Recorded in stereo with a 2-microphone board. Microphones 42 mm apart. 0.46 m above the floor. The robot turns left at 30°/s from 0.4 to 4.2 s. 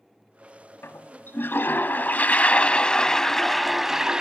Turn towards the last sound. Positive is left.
turn(degrees=-15)